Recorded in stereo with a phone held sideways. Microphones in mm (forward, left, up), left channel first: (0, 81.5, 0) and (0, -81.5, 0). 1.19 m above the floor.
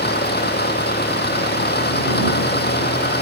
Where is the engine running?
90° left.